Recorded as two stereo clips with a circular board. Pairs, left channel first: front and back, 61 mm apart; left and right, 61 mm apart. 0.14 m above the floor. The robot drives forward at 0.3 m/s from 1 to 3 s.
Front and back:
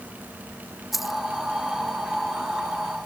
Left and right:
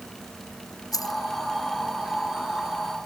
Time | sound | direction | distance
0.9 | keys jangling | 90° left | ?